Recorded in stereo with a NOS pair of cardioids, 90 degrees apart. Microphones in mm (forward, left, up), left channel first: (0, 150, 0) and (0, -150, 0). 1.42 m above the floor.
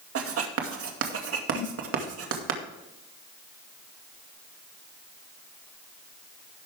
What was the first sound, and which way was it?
Writing, 50° right.